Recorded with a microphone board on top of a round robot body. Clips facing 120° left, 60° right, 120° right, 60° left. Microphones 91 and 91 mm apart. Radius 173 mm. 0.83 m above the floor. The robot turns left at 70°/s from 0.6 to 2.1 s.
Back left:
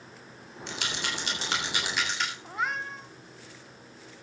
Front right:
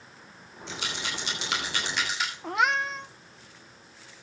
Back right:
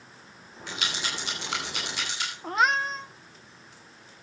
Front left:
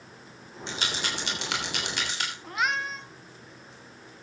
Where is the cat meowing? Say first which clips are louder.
Front right 10 dB, back right 5 dB; 70° right, 1.1 m.